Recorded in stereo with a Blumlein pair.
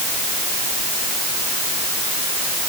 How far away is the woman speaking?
No woman speaking in this recording.